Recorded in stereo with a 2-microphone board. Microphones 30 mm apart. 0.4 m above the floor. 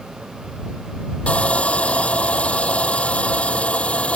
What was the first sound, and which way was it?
Sawing, 40° left (ahead or behind).